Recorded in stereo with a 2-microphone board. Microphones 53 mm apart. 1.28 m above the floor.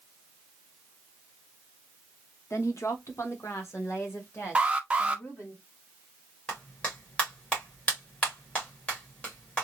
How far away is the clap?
About 1.8 m.